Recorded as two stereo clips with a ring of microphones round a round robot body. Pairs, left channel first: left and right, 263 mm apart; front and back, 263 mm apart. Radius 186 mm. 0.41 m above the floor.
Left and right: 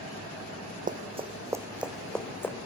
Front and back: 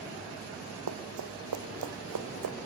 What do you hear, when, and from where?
0.9 s running footsteps: 150° right, 1.0 m; by 2.6 s 170° left, 1.6 m